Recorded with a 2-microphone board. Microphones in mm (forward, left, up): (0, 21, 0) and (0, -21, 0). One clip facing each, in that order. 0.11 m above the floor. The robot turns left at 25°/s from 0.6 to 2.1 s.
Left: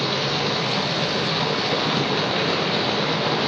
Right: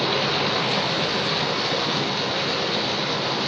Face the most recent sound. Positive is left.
turn(degrees=160)